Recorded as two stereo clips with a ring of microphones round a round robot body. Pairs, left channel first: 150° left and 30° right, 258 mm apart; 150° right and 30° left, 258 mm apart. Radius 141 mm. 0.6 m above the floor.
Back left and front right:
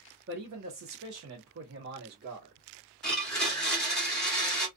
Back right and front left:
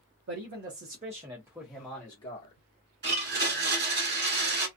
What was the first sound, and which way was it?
A man speaking, 5° left.